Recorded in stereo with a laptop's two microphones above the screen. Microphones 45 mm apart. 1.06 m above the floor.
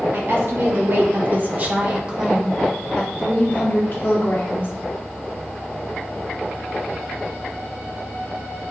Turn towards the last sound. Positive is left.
turn(degrees=60)  # may be behind; listen again after turning